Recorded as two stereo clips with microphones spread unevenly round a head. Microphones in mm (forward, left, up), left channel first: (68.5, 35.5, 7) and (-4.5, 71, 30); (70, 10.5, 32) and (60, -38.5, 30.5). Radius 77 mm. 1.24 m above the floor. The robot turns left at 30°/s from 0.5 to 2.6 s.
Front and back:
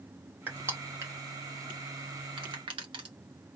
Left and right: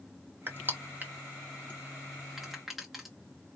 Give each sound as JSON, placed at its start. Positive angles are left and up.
{"t": 0.5, "sound": "crushing", "azimuth_deg": -125, "distance_m": 0.8}